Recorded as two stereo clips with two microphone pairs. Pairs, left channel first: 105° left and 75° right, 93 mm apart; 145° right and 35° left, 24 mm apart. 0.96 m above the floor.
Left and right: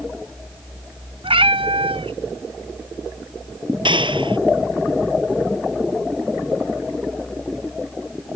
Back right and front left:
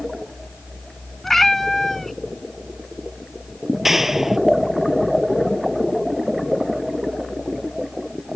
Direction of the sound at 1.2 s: 65° right.